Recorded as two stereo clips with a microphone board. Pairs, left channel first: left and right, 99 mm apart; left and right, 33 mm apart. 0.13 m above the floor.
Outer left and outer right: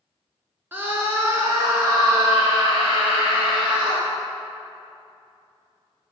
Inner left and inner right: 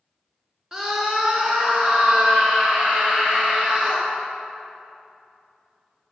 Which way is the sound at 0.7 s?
20° right (ahead or behind).